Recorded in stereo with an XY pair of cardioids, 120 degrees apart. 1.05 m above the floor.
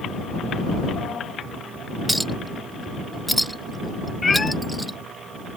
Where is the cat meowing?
25° left.